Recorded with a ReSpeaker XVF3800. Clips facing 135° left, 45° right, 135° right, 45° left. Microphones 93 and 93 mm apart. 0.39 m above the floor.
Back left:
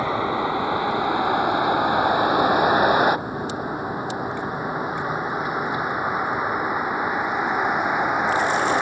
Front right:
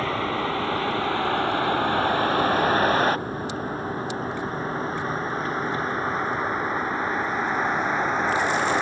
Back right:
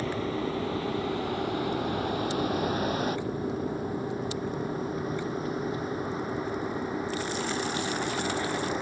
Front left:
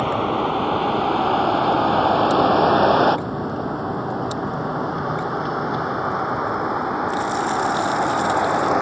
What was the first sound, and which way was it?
A vehicle, 60° left.